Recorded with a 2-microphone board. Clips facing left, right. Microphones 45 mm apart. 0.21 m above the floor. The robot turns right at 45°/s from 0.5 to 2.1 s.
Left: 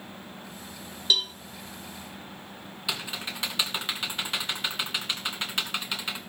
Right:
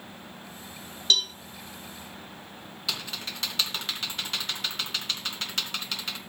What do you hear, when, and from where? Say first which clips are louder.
1.1 s a cowbell: right 1 dB; 15° left (ahead or behind), 0.7 m; by 1.3 s 20° left (ahead or behind), 0.7 m
2.9 s typing on a keyboard: left 2 dB; 20° left (ahead or behind), 2 m